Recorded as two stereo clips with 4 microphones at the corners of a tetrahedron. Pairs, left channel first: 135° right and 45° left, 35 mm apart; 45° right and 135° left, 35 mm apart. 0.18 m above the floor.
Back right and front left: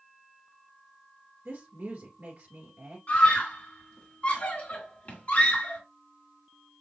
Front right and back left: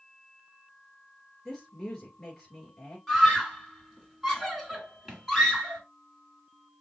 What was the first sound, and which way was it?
A woman speaking, 30° left.